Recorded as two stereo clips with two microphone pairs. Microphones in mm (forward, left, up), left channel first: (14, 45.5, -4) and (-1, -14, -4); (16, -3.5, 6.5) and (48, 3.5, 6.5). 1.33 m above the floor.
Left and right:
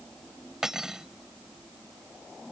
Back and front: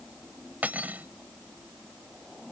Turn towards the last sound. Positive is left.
turn(degrees=-20)